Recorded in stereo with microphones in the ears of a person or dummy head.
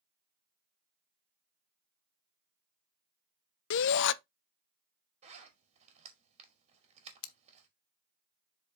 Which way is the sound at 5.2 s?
35° right (ahead or behind).